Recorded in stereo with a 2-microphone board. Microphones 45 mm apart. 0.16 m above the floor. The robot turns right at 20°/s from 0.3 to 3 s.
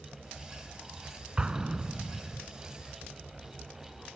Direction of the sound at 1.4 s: 20° right (ahead or behind).